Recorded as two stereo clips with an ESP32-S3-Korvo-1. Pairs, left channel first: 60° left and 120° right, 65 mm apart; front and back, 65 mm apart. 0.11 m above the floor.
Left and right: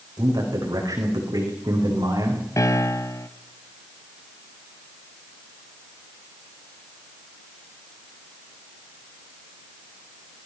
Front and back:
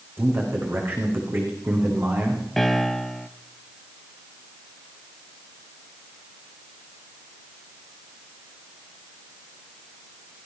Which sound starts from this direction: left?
A piano, at 2.6 s.